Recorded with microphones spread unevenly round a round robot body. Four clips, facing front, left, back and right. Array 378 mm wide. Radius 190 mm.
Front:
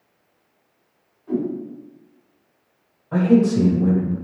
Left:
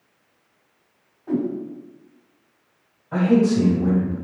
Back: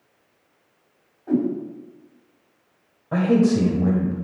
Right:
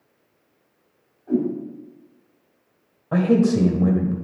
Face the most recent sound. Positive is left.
turn(degrees=-115)